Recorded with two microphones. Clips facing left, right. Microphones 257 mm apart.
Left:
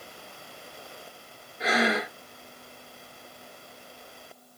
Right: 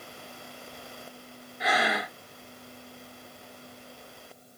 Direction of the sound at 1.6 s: 25° left (ahead or behind).